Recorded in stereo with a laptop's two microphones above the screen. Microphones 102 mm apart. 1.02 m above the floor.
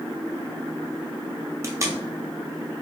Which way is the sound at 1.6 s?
30° right (ahead or behind).